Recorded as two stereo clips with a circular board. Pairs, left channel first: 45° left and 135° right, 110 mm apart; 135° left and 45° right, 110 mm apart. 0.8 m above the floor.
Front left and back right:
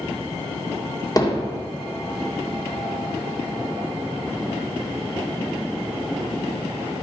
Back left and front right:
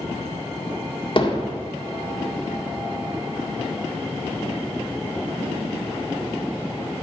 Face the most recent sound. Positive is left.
turn(degrees=100)